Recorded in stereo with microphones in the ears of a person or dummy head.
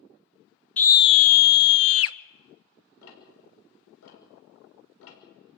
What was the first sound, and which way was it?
A scream, 10° left (ahead or behind).